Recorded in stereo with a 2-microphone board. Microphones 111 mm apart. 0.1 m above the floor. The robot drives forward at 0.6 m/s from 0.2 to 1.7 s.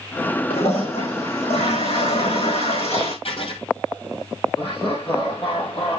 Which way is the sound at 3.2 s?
65° left (ahead or behind).